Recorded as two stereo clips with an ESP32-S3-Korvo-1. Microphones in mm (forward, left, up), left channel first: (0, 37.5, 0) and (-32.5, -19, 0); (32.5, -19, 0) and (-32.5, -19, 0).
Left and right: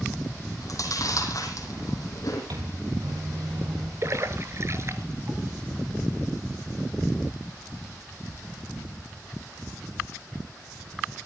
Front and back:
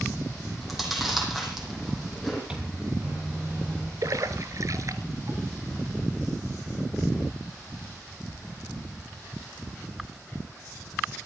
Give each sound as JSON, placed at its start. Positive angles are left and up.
{"t": 0.6, "sound": "chewing", "azimuth_deg": 90, "distance_m": 5.5}
{"t": 2.5, "sound": "a microwave", "azimuth_deg": -105, "distance_m": 3.5}
{"t": 4.0, "sound": "a splash", "azimuth_deg": -160, "distance_m": 1.4}